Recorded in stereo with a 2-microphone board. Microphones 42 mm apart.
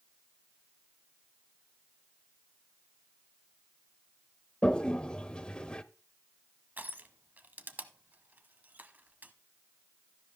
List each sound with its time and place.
4.6 s a toilet flushing: 25° left (ahead or behind), 0.5 m
6.8 s crushing: 45° right (ahead or behind), 0.9 m